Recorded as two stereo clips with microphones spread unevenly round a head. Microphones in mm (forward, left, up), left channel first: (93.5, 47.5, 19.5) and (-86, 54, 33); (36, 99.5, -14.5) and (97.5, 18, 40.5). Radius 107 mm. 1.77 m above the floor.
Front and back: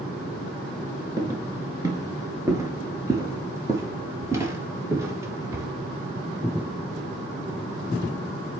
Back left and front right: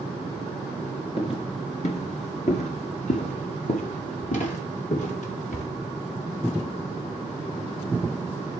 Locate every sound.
1.2 s footsteps: 170° left, 1.8 m; by 5.7 s 110° left, 3 m